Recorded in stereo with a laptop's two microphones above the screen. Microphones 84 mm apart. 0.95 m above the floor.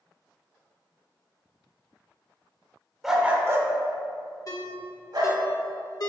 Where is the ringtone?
45° left (ahead or behind), 1.0 m.